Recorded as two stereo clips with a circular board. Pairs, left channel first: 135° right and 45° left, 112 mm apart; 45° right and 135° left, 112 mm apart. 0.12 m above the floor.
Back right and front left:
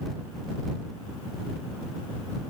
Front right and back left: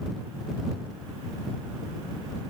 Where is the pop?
No pop in this recording.